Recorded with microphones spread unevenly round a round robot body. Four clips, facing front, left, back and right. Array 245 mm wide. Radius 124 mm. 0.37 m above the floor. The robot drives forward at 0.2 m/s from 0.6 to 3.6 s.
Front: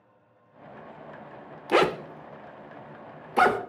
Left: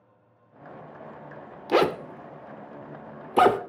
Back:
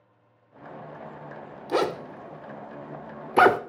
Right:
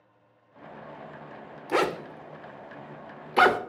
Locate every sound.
1.7 s a zipper: 75° left, 0.5 m; by 3.6 s 150° left, 0.6 m